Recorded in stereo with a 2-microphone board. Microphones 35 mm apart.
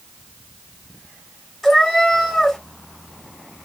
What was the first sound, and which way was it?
A cat meowing, 10° left (ahead or behind).